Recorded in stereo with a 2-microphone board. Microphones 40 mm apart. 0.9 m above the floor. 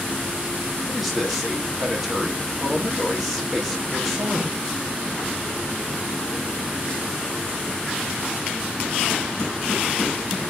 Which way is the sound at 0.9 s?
Centre (ahead or behind).